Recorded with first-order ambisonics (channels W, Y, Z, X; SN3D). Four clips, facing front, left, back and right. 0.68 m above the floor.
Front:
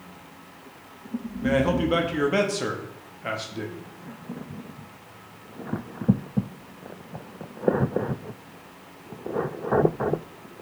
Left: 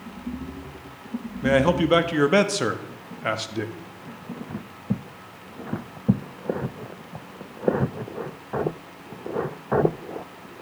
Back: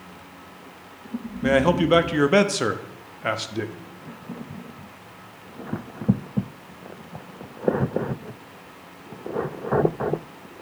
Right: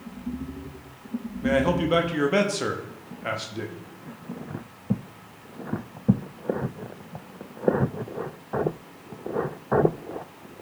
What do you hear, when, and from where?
1.4 s a man speaking: 140° left, 0.6 m